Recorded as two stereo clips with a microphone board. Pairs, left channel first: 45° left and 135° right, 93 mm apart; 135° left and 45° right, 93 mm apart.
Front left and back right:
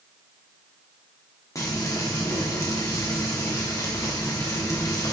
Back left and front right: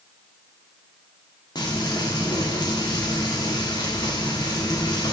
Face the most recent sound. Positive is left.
turn(degrees=95)